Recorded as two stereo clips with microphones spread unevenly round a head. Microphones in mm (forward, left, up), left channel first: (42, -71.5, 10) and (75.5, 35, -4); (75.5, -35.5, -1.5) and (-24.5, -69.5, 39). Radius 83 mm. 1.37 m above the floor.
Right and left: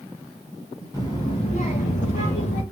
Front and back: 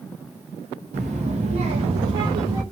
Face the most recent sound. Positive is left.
turn(degrees=-110)